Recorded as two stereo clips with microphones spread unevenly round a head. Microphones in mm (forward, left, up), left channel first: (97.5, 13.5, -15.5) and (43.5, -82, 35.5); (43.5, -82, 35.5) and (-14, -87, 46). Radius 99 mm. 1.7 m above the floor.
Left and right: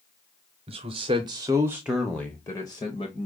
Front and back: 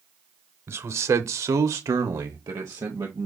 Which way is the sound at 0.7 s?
145° right.